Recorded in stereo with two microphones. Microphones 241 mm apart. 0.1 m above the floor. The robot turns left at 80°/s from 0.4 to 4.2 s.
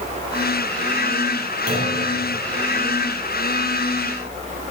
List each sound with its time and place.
1.7 s a clunk: 35° right (ahead or behind), 3.5 m; by 2.0 s 10° right (ahead or behind), 3.5 m